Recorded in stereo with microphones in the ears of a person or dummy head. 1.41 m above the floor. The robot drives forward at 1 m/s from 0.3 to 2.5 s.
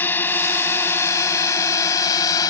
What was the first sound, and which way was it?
A drone, 15° left (ahead or behind).